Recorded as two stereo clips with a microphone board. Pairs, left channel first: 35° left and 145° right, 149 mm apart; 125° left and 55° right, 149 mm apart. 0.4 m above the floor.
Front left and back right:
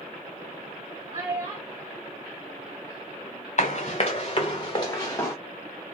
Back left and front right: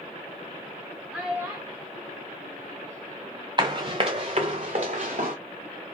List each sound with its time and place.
1.1 s a child speaking: 135° right, 1.0 m; by 3.5 s 60° right, 2 m
3.6 s running footsteps: straight ahead, 1.6 m; by 5.3 s 35° right, 1.9 m